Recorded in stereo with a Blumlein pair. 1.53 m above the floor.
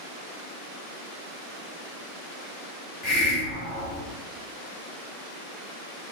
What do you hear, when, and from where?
3.0 s a hiss: 25° left, 1.5 m